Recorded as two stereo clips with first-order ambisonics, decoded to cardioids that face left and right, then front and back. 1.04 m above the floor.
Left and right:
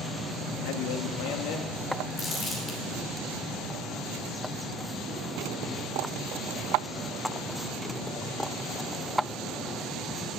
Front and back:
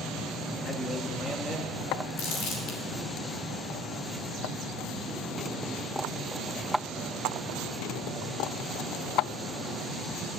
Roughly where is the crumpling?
Ahead.